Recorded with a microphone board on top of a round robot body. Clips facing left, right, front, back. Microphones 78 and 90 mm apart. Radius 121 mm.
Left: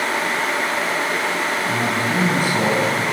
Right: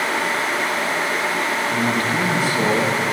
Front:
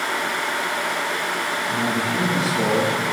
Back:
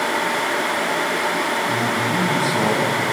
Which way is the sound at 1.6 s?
130° left.